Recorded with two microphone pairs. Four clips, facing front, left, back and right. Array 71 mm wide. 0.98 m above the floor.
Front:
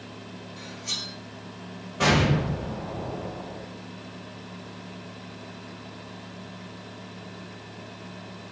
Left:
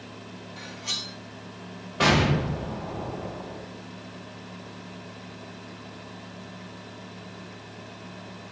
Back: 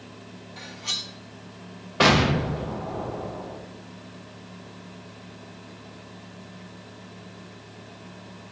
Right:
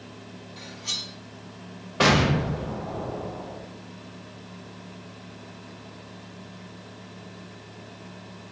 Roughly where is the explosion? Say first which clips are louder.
Right 1 dB, back 3 dB; behind.